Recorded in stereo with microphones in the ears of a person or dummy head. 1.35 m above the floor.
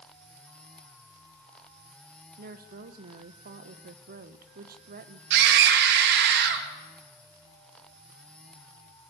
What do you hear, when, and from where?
2.4 s a woman speaking: 45° right (ahead or behind), 1.1 m
5.3 s a scream: 65° right (ahead or behind), 2 m